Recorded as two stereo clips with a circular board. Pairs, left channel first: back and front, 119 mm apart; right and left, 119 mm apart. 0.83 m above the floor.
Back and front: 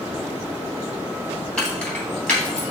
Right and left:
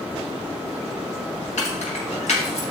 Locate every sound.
1.6 s keys jangling: 95° right, 4.5 m; by 2.6 s 100° right, 3 m